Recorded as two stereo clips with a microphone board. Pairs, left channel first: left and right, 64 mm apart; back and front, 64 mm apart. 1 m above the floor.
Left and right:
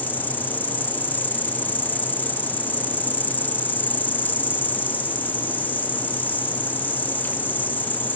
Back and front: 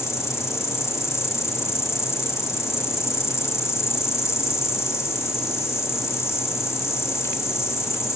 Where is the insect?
145° left.